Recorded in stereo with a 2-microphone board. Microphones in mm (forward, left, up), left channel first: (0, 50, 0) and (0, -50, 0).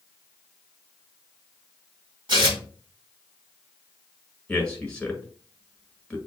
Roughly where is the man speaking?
Centre.